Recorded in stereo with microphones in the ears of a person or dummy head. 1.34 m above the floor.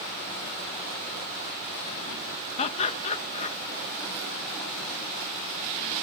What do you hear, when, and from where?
2.6 s laughter: 35° left (ahead or behind)